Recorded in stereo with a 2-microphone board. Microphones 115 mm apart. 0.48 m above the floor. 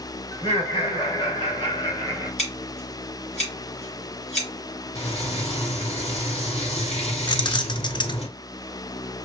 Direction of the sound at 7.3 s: 40° left (ahead or behind).